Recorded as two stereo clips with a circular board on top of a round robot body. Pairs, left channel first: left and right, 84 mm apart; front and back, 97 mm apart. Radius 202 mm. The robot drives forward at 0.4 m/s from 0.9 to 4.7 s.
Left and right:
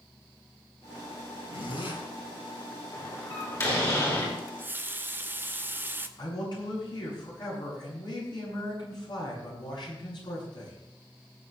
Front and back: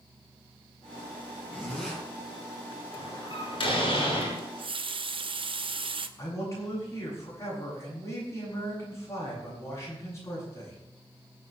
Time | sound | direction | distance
1.5 | a zipper | 75° left | 7 m
2.9 | a door slam | 35° left | 7.5 m
4.4 | a running tap | 155° right | 1.0 m
6.2 | a man speaking | 60° left | 8.5 m